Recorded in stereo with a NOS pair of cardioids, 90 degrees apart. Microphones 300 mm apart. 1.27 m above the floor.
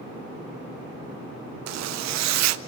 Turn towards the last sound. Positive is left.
turn(degrees=-65)